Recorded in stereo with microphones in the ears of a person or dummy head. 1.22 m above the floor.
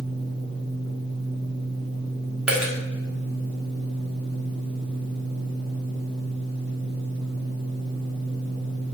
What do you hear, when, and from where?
0.0 s a fan: 35° right (ahead or behind), 1.6 m
2.5 s a dropped coin: 5° right (ahead or behind), 1.1 m